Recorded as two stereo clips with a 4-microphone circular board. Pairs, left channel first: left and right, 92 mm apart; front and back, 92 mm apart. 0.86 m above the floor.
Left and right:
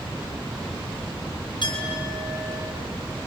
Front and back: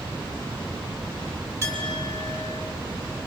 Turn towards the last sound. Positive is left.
turn(degrees=125)